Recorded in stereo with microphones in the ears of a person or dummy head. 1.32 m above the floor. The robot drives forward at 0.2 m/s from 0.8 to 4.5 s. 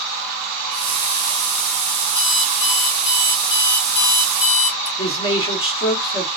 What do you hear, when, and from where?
2.1 s an alarm clock: 50° left (ahead or behind), 0.7 m; by 4.9 s 40° left (ahead or behind), 0.8 m
5.0 s a man speaking: 25° left (ahead or behind), 1.1 m